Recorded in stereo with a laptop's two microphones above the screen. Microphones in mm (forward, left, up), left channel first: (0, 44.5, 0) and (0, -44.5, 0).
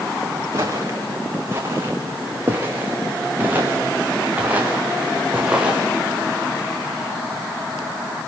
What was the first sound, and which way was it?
Footsteps, 35° right (ahead or behind).